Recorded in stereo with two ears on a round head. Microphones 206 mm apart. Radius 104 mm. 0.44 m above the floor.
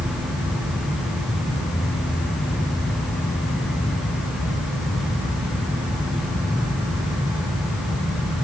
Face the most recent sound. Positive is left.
No sound to turn to.